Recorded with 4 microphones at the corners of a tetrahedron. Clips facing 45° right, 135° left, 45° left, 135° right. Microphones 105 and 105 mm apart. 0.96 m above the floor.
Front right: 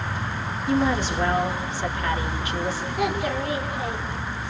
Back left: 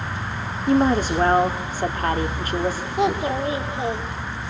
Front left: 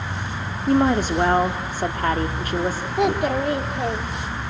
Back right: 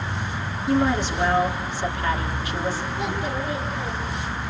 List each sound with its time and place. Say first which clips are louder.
0.7 s a woman speaking: back left 5 dB, front left 3 dB; 90° left, 2.5 m
3.0 s a child speaking: back left 5 dB, front left 7 dB; 70° left, 2.0 m